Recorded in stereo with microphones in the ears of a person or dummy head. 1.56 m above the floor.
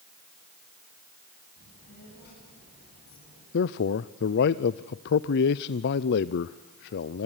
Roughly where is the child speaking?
Left.